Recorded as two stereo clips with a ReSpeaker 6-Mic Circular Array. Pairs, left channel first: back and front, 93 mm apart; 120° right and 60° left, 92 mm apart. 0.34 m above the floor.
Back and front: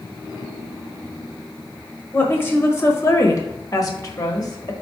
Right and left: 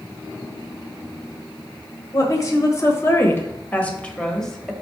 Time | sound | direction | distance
2.1 | a woman speaking | 125° right | 1.4 m